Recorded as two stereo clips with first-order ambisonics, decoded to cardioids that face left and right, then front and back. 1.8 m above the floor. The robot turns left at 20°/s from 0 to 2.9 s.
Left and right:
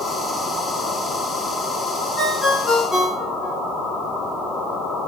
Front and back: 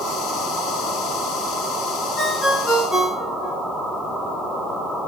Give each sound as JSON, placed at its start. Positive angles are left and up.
{"t": 2.2, "sound": "a ringtone", "azimuth_deg": 55, "distance_m": 0.9}